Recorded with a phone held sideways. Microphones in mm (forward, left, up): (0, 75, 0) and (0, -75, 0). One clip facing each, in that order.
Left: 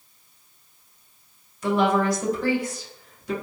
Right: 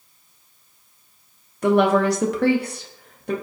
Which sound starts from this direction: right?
A woman speaking, at 1.6 s.